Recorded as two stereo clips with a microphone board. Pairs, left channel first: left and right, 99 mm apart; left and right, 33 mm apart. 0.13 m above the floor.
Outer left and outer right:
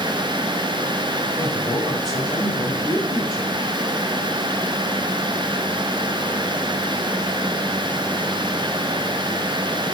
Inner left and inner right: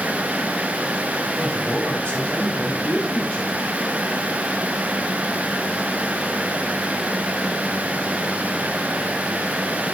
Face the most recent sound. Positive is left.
turn(degrees=35)  # may be behind; listen again after turning